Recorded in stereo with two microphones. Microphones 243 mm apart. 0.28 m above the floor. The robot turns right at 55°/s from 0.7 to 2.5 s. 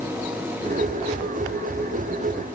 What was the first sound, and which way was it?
Only background noise.